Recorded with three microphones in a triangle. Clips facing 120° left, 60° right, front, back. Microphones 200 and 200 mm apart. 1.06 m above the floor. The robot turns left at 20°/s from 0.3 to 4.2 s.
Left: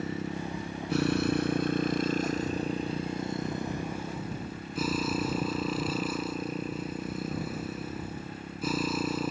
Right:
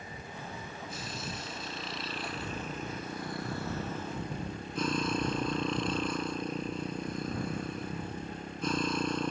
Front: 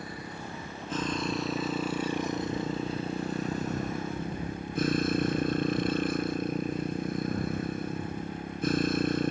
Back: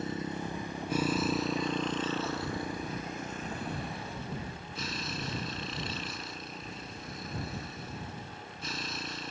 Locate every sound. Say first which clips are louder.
0.0 s a motorcycle: left 11 dB, back 5 dB; 115° left; by 9.3 s 35° left